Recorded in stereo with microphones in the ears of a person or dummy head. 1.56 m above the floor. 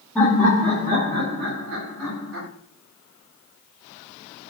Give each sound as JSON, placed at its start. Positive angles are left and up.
{"t": 0.1, "sound": "laughter", "side_deg": 0, "distance_m": 0.9}